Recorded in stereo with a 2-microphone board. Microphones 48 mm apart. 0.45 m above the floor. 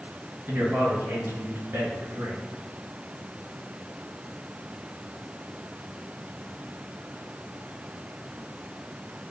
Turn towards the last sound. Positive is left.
turn(degrees=-60)  # may be behind; listen again after turning